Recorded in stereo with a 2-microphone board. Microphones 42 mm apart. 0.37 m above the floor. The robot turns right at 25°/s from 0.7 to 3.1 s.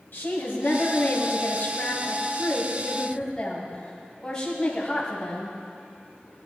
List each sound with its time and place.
0.1 s a woman speaking: 105° left, 1.8 m; by 5.6 s 165° left, 1.8 m